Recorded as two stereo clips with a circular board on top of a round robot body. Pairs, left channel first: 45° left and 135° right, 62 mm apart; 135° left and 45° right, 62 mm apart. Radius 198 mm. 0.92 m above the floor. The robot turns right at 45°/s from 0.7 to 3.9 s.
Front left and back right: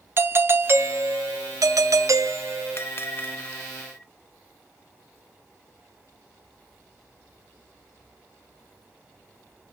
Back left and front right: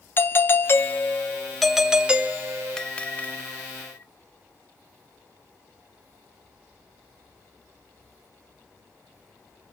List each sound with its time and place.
0.2 s a doorbell: straight behind, 1.1 m; by 2.8 s 80° right, 1.1 m
2.8 s a bell: 60° left, 0.8 m; by 4.1 s 115° left, 0.8 m